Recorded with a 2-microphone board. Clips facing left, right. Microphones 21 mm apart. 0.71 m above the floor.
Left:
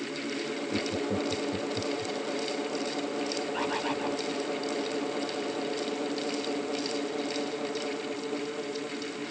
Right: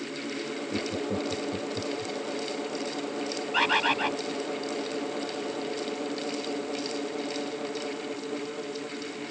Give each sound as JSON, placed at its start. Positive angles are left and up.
{"t": 0.7, "sound": "laughter", "side_deg": -5}
{"t": 3.5, "sound": "a bird", "side_deg": -80}